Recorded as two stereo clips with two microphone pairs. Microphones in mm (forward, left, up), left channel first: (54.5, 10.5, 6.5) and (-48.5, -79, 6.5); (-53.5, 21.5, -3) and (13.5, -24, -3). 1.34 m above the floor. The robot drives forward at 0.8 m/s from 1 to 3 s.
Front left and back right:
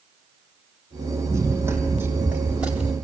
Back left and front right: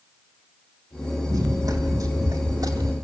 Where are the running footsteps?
75° right, 3.5 m; by 2.9 s 55° right, 3 m.